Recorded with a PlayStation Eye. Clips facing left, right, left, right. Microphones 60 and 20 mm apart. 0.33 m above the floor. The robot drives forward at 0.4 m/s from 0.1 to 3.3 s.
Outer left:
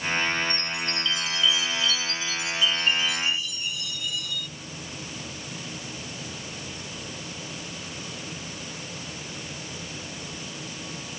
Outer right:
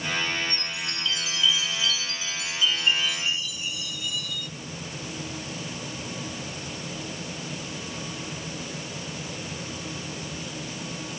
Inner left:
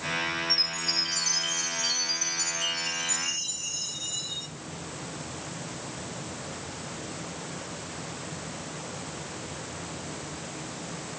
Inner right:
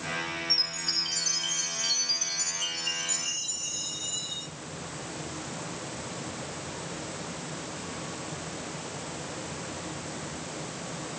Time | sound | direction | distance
0.5 | a chime | centre (ahead or behind) | 1.6 m